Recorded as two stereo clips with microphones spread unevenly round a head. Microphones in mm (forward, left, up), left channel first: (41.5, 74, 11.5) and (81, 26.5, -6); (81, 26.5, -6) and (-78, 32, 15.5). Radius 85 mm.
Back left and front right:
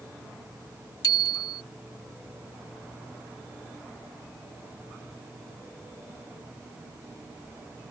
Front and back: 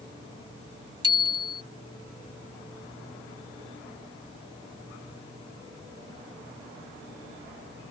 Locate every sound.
1.0 s a bicycle bell: 115° left